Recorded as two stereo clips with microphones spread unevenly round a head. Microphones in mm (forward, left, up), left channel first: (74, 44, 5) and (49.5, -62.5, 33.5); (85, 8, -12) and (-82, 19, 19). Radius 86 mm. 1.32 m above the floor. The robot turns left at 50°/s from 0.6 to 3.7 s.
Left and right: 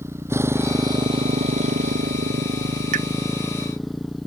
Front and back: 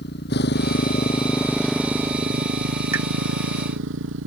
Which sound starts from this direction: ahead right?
A motorcycle, at 0.0 s.